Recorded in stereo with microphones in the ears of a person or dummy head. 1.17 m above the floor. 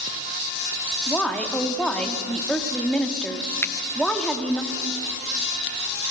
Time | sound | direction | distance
1.1 | a woman speaking | 5° left (ahead or behind) | 2 m
3.6 | a finger snap | 15° left (ahead or behind) | 0.9 m